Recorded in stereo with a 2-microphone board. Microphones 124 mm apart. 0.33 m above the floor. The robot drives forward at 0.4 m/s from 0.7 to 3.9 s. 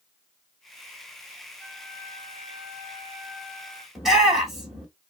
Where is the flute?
Centre (ahead or behind), 1.6 m.